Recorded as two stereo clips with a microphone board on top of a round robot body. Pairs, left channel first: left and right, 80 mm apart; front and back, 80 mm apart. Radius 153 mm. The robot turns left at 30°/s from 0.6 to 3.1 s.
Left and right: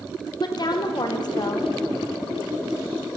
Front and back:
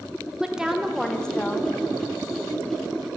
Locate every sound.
0.4 s a woman speaking: 100° left, 0.9 m; by 1.7 s 65° left, 0.9 m